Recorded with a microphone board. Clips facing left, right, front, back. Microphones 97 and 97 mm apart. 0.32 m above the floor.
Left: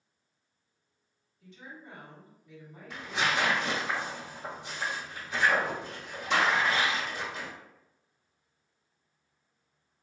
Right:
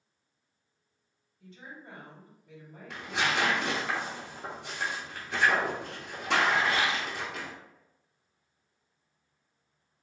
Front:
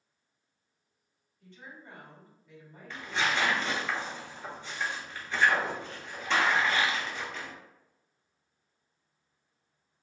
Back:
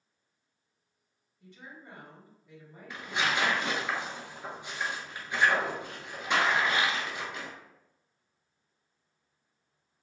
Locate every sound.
1.4 s a woman speaking: 115° right, 1.6 m
2.9 s tearing paper: 105° right, 0.8 m